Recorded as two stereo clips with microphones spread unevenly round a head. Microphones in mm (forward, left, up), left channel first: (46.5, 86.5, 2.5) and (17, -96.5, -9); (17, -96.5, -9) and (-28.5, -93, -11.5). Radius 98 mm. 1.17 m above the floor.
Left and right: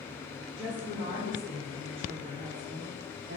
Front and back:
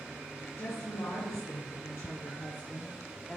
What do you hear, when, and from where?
0.6 s a woman speaking: 25° right, 2 m; by 3.4 s 80° right, 0.9 m